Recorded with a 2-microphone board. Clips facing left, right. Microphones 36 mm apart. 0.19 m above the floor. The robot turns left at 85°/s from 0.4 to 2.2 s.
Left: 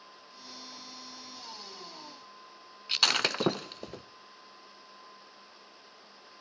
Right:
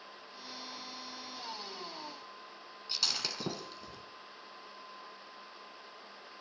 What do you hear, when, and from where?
2.9 s breaking glass: 60° left (ahead or behind), 0.5 m